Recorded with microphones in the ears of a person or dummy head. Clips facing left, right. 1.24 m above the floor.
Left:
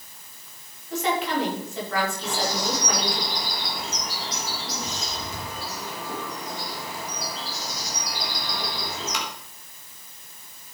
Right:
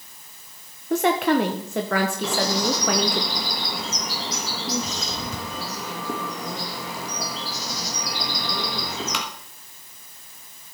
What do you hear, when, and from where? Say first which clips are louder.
0.9 s a woman speaking: right 6 dB; 50° right (ahead or behind), 1.0 m
2.2 s a bird: right 4 dB; 65° right (ahead or behind), 1.4 m